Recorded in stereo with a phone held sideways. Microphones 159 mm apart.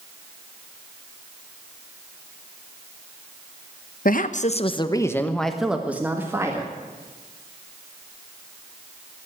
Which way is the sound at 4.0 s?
70° left (ahead or behind).